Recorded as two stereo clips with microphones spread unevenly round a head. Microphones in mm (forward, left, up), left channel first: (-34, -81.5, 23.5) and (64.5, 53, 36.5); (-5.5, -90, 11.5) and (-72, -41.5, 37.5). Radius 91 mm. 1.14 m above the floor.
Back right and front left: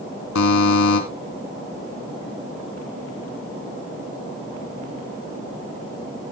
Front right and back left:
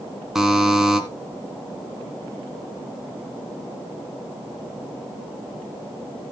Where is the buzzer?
140° right, 2 m.